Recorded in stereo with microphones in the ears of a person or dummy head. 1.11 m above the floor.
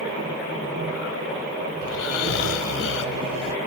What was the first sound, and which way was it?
Snoring, 75° left (ahead or behind).